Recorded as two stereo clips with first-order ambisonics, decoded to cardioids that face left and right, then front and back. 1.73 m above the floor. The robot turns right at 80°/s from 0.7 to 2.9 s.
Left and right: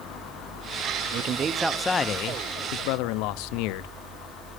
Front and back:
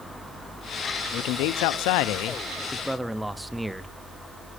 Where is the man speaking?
50° right, 0.7 m; by 3.9 s 95° left, 0.7 m.